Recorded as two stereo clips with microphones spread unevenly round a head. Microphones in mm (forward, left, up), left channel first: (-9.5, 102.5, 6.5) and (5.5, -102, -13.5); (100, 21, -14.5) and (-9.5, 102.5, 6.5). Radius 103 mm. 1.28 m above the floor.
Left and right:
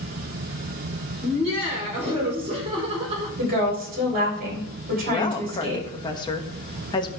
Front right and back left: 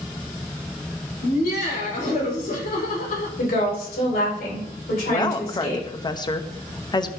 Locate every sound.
1.2 s laughter: 25° right, 5 m
3.4 s a woman speaking: 35° right, 5 m
5.1 s a woman speaking: 25° left, 1.1 m